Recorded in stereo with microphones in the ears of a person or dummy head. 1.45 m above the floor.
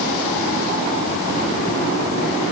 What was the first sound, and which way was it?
Only background noise.